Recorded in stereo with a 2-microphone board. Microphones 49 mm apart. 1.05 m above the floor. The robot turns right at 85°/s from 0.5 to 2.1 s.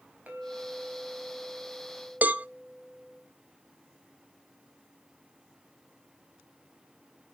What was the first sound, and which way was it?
A clink, 145° right.